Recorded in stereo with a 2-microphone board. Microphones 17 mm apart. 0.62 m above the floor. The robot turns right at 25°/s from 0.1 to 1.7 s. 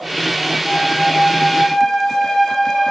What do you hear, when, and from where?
0.7 s a flute: 70° left (ahead or behind), 2.5 m; by 2.9 s 80° left, 2.5 m